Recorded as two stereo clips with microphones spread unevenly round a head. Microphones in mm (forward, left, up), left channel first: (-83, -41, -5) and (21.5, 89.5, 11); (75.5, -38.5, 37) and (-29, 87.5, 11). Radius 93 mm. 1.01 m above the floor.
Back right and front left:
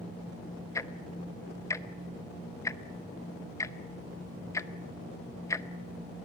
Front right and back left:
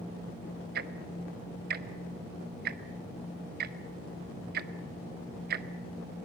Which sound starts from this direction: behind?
Ticking, at 0.8 s.